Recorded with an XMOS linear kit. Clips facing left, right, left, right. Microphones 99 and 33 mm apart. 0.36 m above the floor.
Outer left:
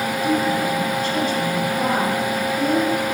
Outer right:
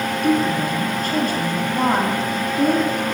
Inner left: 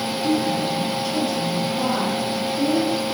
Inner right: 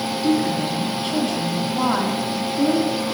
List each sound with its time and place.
0.2 s a woman speaking: 55° right (ahead or behind), 2.5 m